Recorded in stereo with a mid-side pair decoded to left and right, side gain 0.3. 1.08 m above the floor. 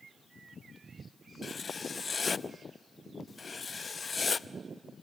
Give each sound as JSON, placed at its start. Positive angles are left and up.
{"t": 1.4, "sound": "writing", "azimuth_deg": 50, "distance_m": 0.6}